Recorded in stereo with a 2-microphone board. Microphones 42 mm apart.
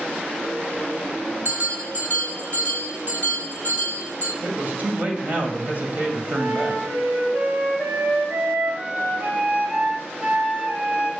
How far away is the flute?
About 2 m.